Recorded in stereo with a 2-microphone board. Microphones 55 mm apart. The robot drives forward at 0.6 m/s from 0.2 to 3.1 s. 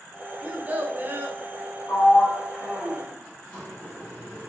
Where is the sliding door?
25° left (ahead or behind), 2 m; by 4.5 s 20° left (ahead or behind), 2.5 m.